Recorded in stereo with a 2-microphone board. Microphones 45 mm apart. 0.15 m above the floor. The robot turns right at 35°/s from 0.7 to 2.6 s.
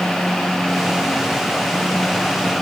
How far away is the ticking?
No ticking in this recording.